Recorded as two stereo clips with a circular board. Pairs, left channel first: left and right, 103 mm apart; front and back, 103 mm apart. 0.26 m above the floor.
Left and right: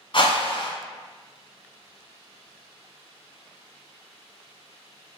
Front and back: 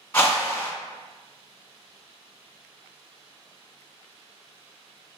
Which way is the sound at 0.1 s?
55° left.